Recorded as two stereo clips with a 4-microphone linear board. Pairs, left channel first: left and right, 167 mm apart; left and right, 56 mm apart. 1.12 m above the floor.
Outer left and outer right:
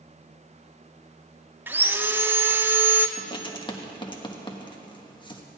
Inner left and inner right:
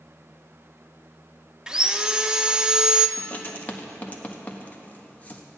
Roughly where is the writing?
Left.